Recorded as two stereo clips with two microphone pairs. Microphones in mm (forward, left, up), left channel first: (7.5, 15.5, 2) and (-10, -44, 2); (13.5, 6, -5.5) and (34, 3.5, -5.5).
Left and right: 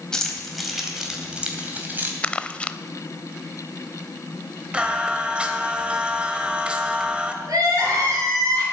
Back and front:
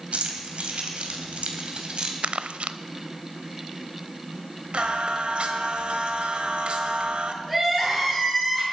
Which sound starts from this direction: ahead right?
Singing, at 4.7 s.